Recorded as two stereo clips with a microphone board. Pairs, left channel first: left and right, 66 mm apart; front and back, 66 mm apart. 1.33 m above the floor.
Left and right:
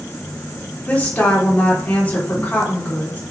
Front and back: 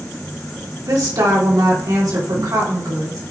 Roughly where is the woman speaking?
Behind left.